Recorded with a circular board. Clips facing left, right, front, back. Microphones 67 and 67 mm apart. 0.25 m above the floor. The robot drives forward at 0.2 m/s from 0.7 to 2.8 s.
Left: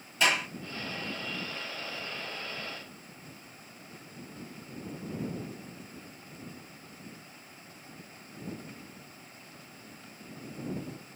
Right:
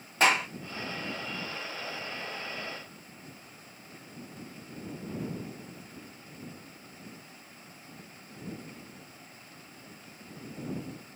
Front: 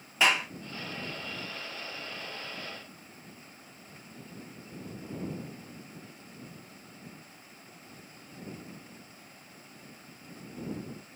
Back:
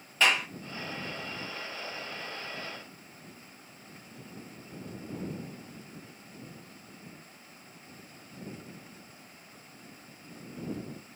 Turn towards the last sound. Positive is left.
turn(degrees=-95)